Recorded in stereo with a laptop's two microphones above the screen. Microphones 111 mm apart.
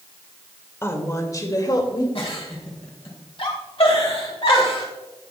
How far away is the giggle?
About 1.9 m.